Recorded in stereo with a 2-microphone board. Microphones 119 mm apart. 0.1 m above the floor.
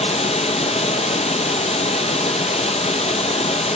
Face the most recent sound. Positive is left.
turn(degrees=65)  # may be behind; listen again after turning